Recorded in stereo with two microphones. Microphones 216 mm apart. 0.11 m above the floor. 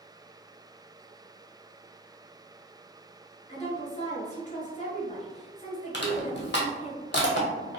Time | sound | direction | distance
3.5 | a woman speaking | 35° left (ahead or behind) | 1.4 m
5.9 | crushing | 55° left (ahead or behind) | 1.0 m